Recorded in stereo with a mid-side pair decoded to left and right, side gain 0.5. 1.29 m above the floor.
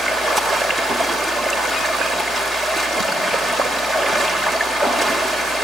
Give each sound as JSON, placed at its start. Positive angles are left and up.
{"t": 0.0, "sound": "running water", "azimuth_deg": -30, "distance_m": 2.5}